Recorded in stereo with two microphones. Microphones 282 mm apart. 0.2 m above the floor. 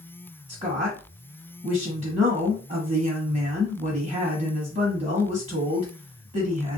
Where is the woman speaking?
25° right (ahead or behind), 1.2 m.